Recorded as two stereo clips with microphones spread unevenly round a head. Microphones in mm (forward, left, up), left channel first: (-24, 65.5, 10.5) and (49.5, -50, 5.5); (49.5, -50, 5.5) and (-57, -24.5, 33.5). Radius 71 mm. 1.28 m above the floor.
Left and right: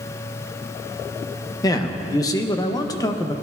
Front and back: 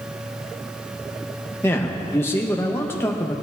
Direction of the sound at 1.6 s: 55° left.